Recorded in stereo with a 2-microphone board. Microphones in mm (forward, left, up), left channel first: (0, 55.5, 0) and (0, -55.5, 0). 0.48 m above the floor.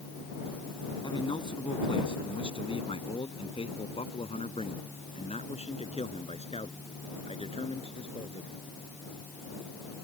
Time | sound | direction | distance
1.0 | a man speaking | 50° left (ahead or behind) | ?